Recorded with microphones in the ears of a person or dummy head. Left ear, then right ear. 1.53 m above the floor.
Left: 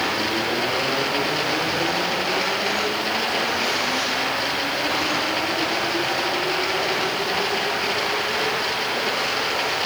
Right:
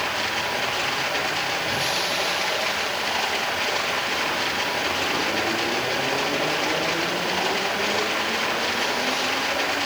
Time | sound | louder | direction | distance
0.0 | running water | left 2 dB | 20° right (ahead or behind) | 8.5 m